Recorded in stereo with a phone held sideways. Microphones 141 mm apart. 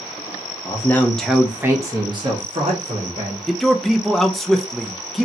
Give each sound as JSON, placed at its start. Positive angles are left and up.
{"t": 0.7, "sound": "a man speaking", "side_deg": 25, "distance_m": 0.8}
{"t": 3.5, "sound": "a man speaking", "side_deg": 0, "distance_m": 0.5}